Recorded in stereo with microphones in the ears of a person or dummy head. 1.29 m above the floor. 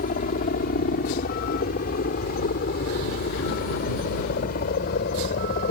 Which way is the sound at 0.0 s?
45° left (ahead or behind).